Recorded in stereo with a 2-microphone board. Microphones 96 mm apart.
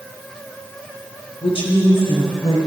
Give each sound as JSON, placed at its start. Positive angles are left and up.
{"t": 1.4, "sound": "a woman speaking", "side_deg": 70, "distance_m": 3.0}